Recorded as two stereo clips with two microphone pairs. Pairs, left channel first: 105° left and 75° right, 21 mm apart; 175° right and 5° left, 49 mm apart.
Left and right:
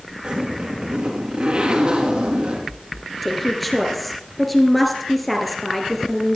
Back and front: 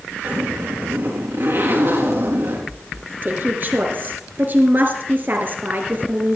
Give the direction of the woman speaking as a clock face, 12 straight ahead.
11 o'clock.